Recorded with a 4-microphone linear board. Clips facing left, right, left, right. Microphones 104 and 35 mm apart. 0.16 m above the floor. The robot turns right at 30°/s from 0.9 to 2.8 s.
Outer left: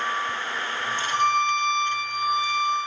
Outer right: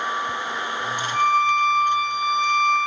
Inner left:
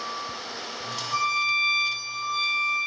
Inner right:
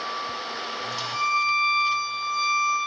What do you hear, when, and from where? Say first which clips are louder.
1.1 s a violin: outer right 3 dB, inner right 1 dB; 100° left, 5.5 m; by 2.8 s 150° left, 5.5 m